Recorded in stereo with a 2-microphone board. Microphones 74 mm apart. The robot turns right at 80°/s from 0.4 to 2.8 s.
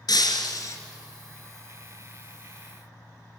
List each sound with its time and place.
0.1 s breaking glass: 105° left, 2 m; by 0.8 s 135° left, 2 m